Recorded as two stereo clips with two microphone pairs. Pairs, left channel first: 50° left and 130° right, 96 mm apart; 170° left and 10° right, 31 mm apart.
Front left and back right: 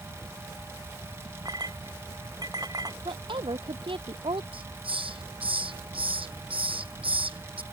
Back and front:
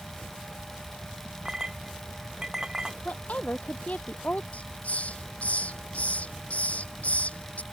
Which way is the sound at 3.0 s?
155° right.